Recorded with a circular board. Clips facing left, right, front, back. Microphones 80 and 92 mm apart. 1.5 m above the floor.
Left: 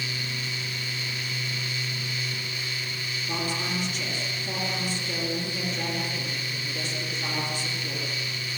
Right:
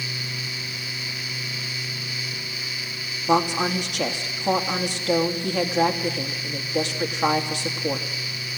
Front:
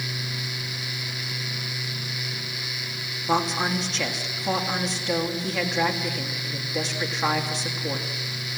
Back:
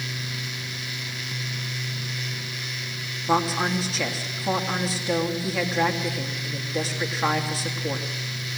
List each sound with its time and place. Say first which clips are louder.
3.3 s a woman speaking: right 11 dB, back 1 dB; 95° right, 3 m